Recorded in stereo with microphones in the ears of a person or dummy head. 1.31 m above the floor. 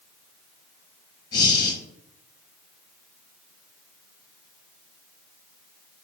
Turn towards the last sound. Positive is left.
turn(degrees=30)  # may be behind; listen again after turning